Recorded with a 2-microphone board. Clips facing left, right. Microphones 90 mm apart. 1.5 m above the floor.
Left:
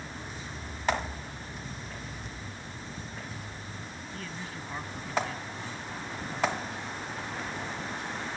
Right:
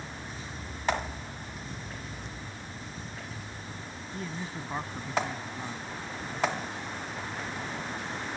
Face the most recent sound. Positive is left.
turn(degrees=-25)  # may be behind; listen again after turning